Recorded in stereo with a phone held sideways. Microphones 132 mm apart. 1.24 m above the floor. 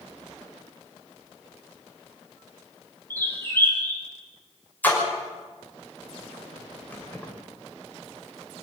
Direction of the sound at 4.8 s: 15° left (ahead or behind).